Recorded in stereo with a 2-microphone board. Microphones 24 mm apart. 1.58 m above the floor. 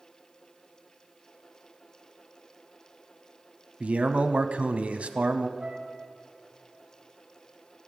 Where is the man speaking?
65° right (ahead or behind), 0.7 m.